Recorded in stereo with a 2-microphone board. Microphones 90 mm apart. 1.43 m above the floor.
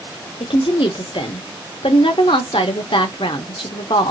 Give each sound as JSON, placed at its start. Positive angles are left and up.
{"t": 0.4, "sound": "a woman speaking", "side_deg": 70, "distance_m": 0.8}